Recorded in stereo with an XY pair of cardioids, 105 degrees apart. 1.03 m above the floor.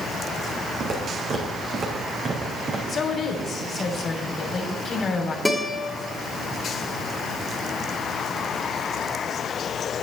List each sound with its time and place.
0.8 s footsteps: 45° right, 4.5 m
2.9 s a woman speaking: 45° left, 3 m
5.5 s a guitar: 10° left, 3 m